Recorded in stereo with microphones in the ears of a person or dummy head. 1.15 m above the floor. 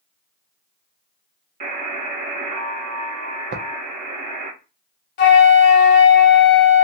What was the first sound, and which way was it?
A buzzer, 35° right (ahead or behind).